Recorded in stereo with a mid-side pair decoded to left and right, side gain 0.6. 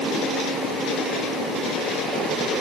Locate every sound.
Only background noise.